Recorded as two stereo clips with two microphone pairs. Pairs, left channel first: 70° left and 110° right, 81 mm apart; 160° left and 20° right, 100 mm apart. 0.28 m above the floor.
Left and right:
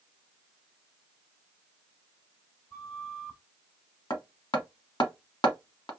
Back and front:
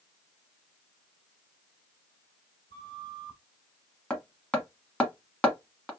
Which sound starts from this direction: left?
Hammering, at 4.1 s.